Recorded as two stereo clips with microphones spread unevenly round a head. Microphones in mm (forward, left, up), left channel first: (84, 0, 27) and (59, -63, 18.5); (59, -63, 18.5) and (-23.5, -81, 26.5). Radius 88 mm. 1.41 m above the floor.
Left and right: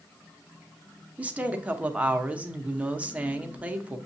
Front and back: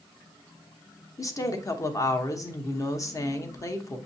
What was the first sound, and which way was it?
A woman speaking, 40° right.